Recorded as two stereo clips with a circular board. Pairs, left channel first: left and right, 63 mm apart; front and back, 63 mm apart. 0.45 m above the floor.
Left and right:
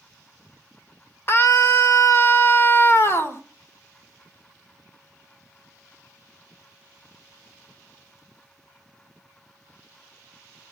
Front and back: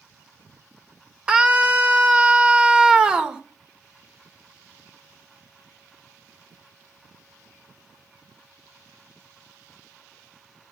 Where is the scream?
110° left, 1.6 m.